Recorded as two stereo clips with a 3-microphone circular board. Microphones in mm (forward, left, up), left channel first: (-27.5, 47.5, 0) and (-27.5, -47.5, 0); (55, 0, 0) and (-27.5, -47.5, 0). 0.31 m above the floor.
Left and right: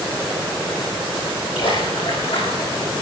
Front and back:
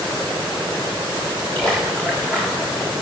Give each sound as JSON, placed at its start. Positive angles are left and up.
{"t": 1.6, "sound": "a splash", "azimuth_deg": 105, "distance_m": 8.5}